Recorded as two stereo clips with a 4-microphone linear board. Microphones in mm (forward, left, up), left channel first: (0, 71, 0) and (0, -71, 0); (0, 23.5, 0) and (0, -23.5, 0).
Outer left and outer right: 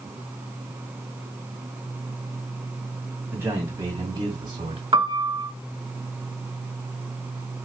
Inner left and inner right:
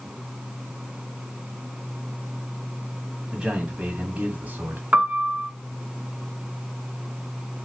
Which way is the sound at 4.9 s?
35° right (ahead or behind).